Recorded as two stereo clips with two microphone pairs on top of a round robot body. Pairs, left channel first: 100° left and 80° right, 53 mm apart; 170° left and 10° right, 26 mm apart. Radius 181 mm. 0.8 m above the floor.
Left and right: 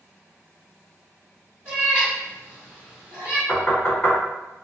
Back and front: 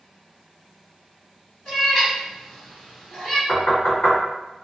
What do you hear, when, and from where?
1.6 s a cat meowing: 145° right, 1.2 m
3.5 s knocking: 170° left, 1.6 m